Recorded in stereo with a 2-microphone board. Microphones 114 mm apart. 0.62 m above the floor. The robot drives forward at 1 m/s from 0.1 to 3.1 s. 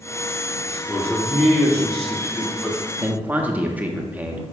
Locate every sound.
0.7 s a man speaking: 10° left (ahead or behind), 1.7 m; by 2.8 s 5° left (ahead or behind), 3.5 m
3.0 s a man speaking: 15° right (ahead or behind), 0.8 m